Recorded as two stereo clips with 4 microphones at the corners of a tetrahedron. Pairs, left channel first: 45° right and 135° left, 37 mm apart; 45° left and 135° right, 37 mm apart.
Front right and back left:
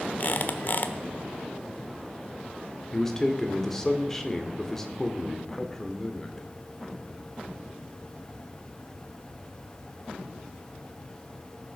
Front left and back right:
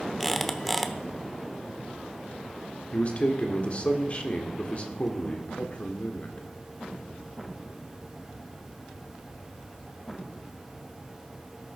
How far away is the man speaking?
About 1.6 m.